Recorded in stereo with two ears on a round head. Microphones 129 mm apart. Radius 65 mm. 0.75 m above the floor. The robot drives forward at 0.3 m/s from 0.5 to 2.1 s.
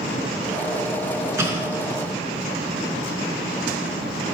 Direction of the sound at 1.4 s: 20° right (ahead or behind).